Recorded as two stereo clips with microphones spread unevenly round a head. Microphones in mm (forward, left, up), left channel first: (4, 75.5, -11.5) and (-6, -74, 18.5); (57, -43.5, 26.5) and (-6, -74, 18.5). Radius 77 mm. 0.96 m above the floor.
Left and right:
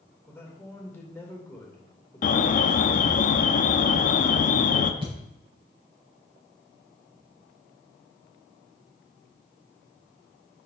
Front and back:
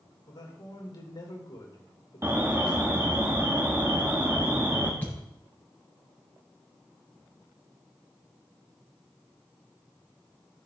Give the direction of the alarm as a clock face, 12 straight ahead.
8 o'clock.